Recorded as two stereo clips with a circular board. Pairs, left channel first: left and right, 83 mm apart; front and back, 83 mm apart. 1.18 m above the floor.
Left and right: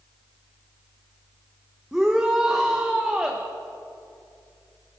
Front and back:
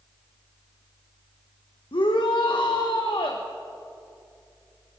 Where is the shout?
10° right, 0.9 m.